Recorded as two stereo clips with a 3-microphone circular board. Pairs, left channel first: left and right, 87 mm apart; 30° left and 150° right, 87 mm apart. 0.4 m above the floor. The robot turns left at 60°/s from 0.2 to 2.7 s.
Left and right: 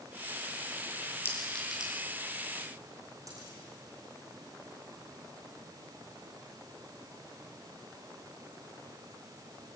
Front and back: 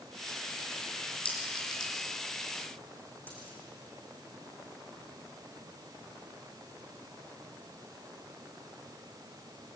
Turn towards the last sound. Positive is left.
turn(degrees=-40)